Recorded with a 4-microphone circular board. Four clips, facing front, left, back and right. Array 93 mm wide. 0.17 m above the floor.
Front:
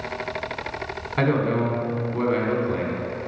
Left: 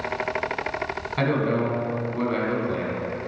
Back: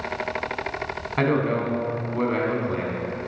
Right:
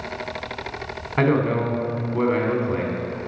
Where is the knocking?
No knocking in this recording.